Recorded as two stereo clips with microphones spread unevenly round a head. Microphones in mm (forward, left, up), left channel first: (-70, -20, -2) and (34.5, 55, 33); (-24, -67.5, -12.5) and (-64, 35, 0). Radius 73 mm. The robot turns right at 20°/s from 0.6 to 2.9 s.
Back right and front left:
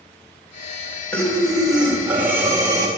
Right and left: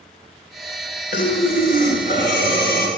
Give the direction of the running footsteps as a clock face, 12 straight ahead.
I don't hear running footsteps.